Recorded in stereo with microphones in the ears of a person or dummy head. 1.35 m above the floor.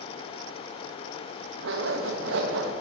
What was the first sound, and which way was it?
A zipper, 75° right (ahead or behind).